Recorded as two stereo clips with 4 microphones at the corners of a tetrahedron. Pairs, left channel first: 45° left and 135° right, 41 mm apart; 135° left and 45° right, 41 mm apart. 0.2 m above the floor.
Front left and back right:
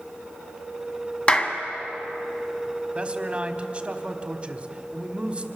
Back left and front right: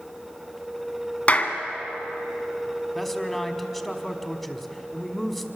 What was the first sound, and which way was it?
A clap, 100° left.